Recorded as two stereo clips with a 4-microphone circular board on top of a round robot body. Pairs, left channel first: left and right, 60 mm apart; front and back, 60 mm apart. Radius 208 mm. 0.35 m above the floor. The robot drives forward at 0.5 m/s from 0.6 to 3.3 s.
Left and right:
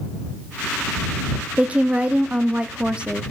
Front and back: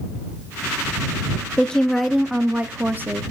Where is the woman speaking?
50° right, 0.9 m; by 3.2 s 155° right, 1.1 m.